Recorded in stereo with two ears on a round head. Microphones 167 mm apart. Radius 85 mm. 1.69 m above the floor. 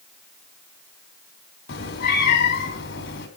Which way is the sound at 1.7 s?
50° left (ahead or behind).